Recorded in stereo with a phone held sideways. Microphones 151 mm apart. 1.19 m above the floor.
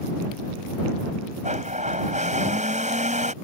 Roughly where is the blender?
Right.